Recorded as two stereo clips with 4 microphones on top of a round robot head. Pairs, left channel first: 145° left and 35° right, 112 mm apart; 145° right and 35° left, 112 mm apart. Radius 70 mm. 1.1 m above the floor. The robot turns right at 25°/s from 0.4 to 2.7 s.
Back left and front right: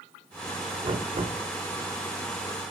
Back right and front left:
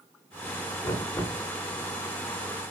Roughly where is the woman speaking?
I don't hear a woman speaking.